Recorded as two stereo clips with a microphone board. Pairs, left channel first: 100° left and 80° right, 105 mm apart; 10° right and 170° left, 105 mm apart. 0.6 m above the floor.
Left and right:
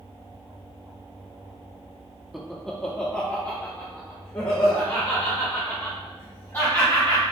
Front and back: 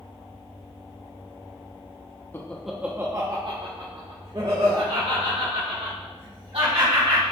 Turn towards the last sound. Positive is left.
turn(degrees=175)